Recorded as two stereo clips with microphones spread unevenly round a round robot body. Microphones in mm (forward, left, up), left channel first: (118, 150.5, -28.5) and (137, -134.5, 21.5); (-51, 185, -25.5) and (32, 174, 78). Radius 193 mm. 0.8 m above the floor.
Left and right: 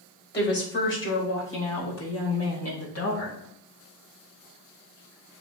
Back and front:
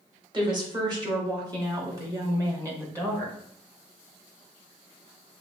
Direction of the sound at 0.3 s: 45° left.